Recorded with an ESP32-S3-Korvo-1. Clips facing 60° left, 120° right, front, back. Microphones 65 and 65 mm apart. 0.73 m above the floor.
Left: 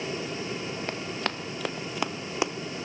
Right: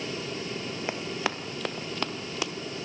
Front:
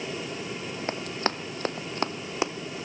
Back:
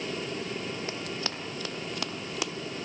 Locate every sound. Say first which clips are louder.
0.9 s running footsteps: right 3 dB, front 5 dB; 40° right, 1.3 m; by 2.5 s 30° left, 0.8 m